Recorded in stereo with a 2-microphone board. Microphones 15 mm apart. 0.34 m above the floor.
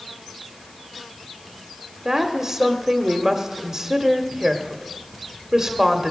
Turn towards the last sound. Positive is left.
turn(degrees=-30)  # may be behind; listen again after turning